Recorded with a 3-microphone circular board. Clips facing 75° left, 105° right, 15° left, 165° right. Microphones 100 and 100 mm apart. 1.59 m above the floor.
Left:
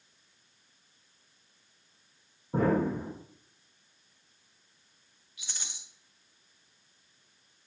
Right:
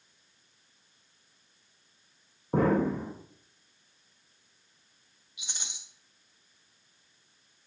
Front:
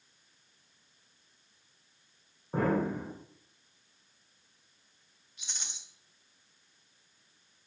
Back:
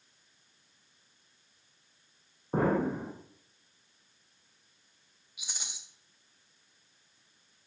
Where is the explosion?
100° right, 1.1 m.